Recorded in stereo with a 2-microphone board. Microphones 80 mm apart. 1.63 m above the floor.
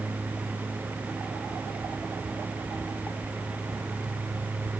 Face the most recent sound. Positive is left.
No sound to turn to.